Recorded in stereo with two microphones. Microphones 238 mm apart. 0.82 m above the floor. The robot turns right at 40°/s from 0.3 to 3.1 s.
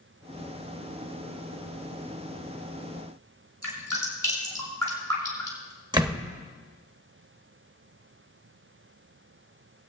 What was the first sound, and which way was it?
Dripping, 85° right.